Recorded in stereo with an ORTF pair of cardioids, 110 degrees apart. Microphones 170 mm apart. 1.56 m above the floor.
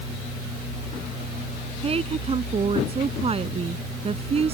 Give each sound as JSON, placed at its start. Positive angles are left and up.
{"t": 1.8, "sound": "a woman speaking", "azimuth_deg": -35}